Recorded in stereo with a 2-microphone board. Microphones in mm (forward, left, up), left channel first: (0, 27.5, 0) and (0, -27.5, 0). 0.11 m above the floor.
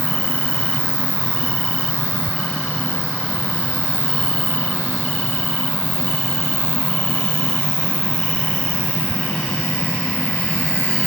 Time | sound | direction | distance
0.0 | an insect | 25° left (ahead or behind) | ?